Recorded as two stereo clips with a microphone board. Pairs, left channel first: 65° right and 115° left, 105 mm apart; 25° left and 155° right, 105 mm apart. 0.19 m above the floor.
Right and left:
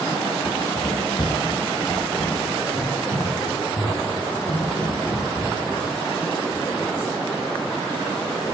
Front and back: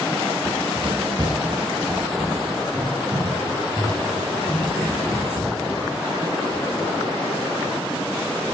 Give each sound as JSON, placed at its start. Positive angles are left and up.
{"t": 0.5, "sound": "running footsteps", "azimuth_deg": -125, "distance_m": 1.4}